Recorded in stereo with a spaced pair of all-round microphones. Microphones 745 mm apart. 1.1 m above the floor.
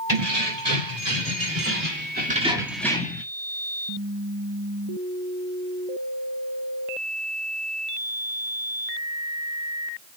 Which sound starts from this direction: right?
Keys jangling, at 0.1 s.